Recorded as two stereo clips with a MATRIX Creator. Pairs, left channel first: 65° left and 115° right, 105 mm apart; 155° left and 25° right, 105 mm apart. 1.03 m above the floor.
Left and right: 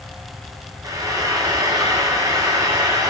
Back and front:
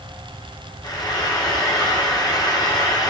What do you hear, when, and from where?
0.8 s frying: 160° right, 0.9 m